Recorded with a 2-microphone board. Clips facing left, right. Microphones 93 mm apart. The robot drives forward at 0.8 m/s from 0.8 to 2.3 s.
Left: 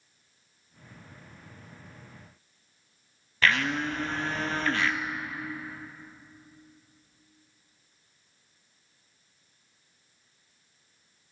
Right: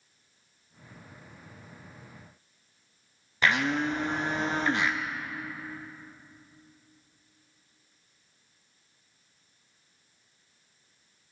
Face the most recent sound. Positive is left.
turn(degrees=-20)  # may be behind; listen again after turning